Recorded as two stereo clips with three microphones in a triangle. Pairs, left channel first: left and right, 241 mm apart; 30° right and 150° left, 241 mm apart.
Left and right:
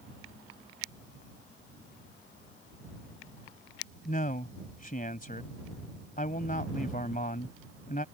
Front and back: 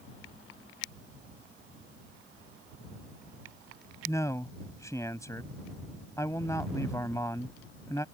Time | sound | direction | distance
4.0 | a man speaking | 45° left | ?